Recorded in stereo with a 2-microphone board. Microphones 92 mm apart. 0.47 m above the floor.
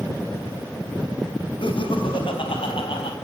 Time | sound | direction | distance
1.6 | laughter | 65° left (ahead or behind) | 3 m